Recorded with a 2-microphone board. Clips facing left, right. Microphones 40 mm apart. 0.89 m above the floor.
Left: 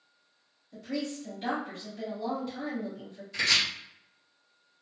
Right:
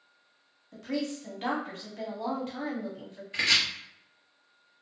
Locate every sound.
0.7 s a woman speaking: 70° right (ahead or behind), 1.3 m
3.3 s chopping: 30° right (ahead or behind), 1.3 m